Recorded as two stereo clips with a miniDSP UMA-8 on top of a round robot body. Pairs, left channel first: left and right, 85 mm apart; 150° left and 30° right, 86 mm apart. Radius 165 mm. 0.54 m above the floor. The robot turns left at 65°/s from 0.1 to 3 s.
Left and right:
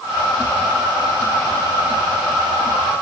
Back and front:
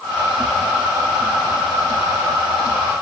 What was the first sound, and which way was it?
Only background noise.